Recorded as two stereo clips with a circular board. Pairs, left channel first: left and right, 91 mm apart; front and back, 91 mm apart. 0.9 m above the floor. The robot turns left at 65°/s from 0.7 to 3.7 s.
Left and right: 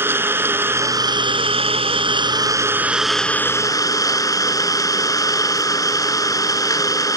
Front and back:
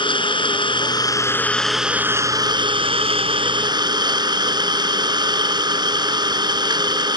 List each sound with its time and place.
0.0 s an engine running: 25° right; by 7.2 s 140° left